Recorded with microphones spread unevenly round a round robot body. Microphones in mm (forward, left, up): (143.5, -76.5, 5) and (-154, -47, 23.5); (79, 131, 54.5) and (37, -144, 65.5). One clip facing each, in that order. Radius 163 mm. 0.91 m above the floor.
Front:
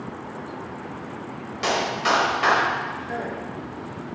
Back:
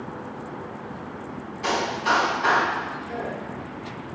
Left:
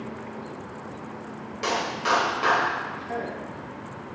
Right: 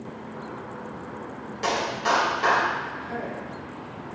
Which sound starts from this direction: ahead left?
A man speaking, at 3.0 s.